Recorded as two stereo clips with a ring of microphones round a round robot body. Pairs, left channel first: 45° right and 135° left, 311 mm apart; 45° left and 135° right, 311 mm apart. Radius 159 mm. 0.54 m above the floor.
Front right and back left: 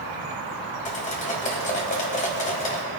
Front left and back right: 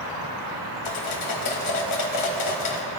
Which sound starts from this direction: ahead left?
Cutlery clinking, at 0.8 s.